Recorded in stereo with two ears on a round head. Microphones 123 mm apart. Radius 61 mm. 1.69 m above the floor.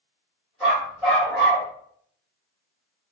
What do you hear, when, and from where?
0.6 s a dog barking: centre (ahead or behind), 1.9 m